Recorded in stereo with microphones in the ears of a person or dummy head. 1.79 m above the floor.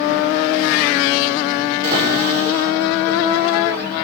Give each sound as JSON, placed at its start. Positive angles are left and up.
{"t": 1.8, "sound": "a cupboard door", "side_deg": -55, "distance_m": 6.0}